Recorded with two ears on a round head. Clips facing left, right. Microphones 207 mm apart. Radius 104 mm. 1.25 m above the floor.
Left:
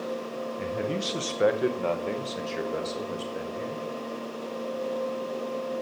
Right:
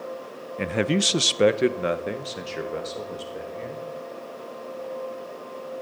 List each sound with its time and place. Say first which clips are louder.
0.6 s a man speaking: right 8 dB; 90° right, 0.7 m; by 3.9 s 15° left (ahead or behind), 2 m